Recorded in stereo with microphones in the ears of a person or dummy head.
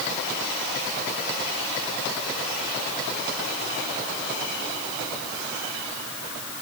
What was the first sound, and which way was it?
Only background noise.